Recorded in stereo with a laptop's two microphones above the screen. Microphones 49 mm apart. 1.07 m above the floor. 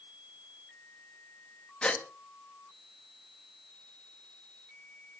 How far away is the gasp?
About 1.2 m.